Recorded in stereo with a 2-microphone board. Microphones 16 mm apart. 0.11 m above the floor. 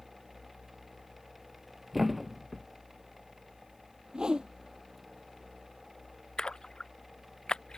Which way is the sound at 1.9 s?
15° right (ahead or behind).